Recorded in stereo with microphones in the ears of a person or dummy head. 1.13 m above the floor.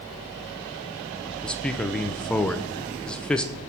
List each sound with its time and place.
1.4 s a man speaking: 5° left (ahead or behind), 0.9 m